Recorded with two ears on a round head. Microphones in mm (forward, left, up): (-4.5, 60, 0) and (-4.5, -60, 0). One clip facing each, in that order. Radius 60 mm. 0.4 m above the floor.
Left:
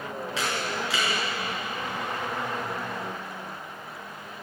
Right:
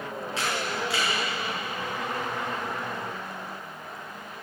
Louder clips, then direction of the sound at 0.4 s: Even; 65° left (ahead or behind).